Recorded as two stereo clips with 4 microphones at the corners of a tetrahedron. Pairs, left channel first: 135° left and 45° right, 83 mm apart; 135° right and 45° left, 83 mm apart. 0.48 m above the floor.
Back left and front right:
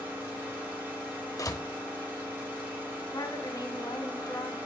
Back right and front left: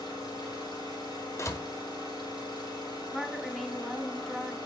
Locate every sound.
0.0 s an engine running: 115° right, 7 m
1.4 s a door slam: 175° left, 1.0 m
3.1 s a woman speaking: 135° left, 1.6 m